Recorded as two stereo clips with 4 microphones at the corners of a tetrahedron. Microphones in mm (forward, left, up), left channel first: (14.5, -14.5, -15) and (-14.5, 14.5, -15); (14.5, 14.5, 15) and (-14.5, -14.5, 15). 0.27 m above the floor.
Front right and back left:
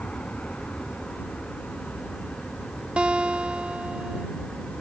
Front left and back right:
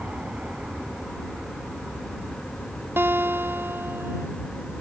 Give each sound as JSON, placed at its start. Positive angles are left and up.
{"t": 0.0, "sound": "an aircraft", "azimuth_deg": -90}
{"t": 3.0, "sound": "a guitar", "azimuth_deg": -160}